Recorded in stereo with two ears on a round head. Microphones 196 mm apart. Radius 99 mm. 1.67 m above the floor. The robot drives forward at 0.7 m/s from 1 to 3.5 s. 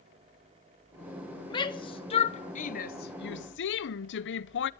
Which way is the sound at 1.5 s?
20° left (ahead or behind).